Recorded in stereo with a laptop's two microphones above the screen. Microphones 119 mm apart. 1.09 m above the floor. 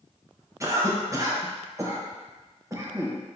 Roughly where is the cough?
Right.